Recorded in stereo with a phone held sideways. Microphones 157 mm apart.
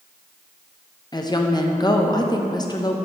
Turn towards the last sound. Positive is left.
turn(degrees=25)  # may be behind; listen again after turning